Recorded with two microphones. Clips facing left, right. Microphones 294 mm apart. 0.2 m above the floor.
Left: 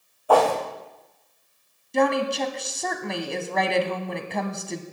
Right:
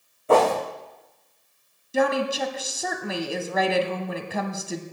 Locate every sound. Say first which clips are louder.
0.3 s a whoosh: right 1 dB; 25° right (ahead or behind), 2.5 m
1.9 s a woman speaking: left 1 dB; 5° right (ahead or behind), 1.1 m